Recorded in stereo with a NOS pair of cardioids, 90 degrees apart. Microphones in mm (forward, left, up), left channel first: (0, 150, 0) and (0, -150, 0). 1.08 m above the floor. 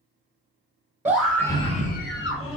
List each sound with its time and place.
1.1 s a scream: 5° right, 0.9 m; by 2.6 s 50° left, 1.0 m